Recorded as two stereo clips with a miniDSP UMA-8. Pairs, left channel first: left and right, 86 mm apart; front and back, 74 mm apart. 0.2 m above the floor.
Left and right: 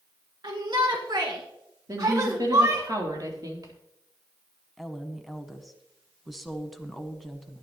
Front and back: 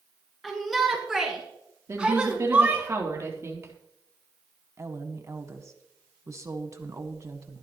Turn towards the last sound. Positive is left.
turn(degrees=180)